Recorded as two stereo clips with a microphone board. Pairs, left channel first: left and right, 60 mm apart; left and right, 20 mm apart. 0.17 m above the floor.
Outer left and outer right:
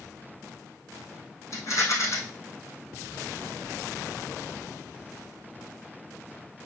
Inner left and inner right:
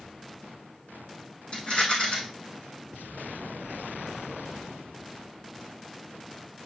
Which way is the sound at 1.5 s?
55° left (ahead or behind).